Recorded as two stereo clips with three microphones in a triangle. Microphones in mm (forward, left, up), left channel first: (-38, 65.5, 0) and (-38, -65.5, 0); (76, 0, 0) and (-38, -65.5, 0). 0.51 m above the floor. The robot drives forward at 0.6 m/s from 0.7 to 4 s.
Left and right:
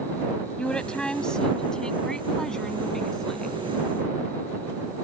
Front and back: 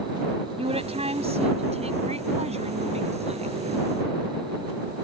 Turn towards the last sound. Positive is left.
turn(degrees=175)